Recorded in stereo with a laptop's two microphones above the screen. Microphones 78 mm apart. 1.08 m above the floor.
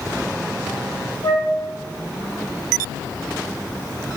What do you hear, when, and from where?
1.2 s a flute: 65° left (ahead or behind), 1.5 m